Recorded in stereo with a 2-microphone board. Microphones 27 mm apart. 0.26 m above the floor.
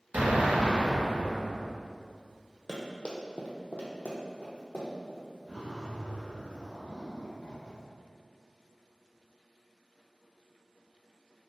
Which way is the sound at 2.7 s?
15° left (ahead or behind).